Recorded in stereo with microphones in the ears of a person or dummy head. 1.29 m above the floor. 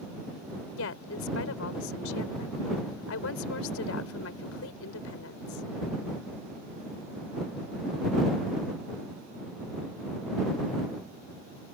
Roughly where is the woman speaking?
Left.